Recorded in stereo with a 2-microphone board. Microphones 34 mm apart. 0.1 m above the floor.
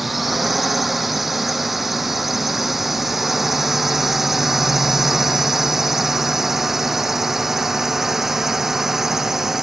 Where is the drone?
5° right (ahead or behind); by 9.6 s 10° right (ahead or behind).